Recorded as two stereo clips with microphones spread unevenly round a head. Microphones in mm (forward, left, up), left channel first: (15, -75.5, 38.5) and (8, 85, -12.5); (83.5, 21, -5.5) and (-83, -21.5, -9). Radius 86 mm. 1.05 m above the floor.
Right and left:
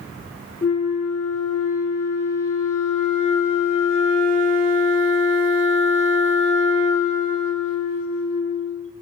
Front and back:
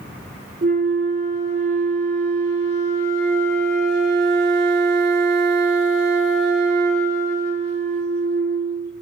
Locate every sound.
0.6 s a flute: 125° right, 1.5 m